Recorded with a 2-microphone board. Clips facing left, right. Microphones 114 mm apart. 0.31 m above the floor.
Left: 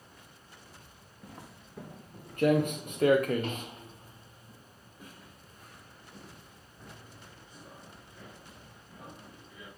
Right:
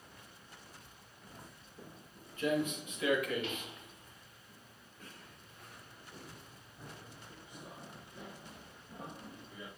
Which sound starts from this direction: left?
Footsteps, at 1.2 s.